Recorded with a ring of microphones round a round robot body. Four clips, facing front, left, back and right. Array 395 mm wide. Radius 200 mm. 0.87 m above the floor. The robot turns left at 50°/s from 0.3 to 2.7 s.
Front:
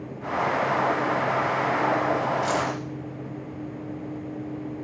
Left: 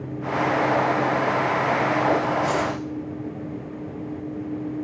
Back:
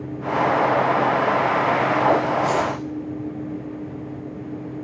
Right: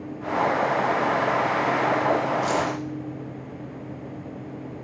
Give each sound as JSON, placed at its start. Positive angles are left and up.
{"t": 2.4, "sound": "keys jangling", "azimuth_deg": -40, "distance_m": 3.0}